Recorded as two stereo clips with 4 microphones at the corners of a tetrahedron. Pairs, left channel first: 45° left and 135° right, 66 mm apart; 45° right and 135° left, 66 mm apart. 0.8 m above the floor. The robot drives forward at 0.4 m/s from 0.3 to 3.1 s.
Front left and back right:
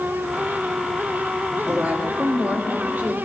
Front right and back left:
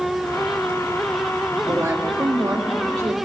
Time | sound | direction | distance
1.7 | a woman speaking | 170° left | 1.5 m